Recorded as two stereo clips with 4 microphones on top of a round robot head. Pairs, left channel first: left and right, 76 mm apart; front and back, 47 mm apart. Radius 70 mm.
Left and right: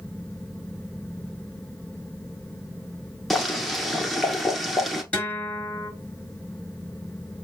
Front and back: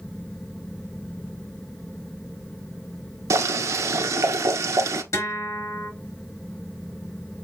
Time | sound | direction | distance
3.3 | boiling | straight behind | 1.3 m
5.1 | a guitar | 15° left | 5 m